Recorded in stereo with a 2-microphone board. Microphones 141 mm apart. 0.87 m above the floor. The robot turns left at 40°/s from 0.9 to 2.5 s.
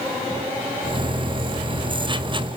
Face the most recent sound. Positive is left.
No sound to turn to.